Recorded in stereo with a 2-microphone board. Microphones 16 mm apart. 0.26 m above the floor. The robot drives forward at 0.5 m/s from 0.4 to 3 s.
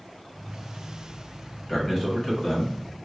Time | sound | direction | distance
1.7 | a man speaking | 20° left (ahead or behind) | 1.0 m